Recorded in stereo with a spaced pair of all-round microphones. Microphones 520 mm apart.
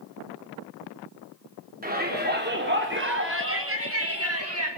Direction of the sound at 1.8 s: 15° right (ahead or behind).